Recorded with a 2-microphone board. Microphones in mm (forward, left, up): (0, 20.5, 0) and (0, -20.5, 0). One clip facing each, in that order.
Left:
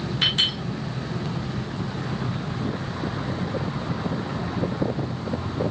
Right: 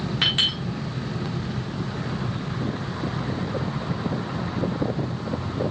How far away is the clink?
About 4 m.